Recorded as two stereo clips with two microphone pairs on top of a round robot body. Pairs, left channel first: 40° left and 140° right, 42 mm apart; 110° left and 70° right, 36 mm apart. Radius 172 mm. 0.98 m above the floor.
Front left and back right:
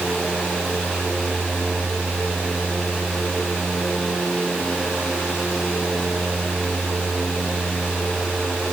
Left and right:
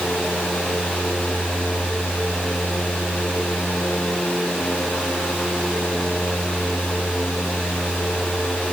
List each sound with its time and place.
Only background noise.